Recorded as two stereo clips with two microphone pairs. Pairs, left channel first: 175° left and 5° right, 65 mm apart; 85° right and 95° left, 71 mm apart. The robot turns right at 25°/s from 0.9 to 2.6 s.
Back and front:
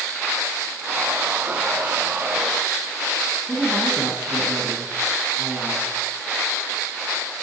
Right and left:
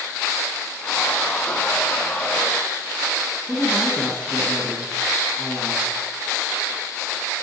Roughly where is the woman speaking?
Ahead right.